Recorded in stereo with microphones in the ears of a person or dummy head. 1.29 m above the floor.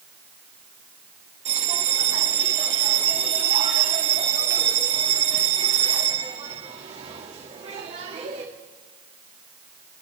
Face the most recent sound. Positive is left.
turn(degrees=-30)  # may be behind; listen again after turning